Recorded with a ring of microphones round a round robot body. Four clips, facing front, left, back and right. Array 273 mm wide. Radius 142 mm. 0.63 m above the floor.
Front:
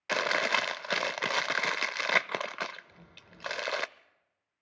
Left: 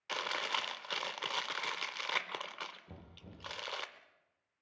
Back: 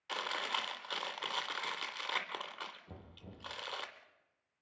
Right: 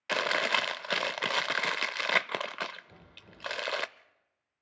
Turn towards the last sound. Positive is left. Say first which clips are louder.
# left 1 dB, back 3 dB
turn(degrees=135)